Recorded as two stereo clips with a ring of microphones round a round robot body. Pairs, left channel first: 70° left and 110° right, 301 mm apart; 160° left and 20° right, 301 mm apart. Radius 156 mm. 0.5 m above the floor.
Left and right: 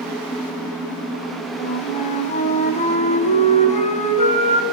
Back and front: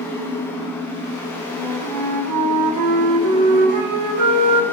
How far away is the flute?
About 4 m.